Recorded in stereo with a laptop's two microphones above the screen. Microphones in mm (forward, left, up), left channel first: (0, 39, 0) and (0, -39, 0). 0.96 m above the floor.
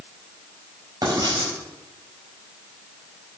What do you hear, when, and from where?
1.0 s writing: 55° right (ahead or behind), 4.5 m